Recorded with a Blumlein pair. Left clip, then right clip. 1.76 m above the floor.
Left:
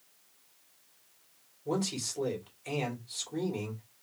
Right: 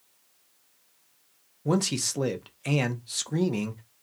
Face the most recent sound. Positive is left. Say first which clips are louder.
# right 6 dB
turn(degrees=-45)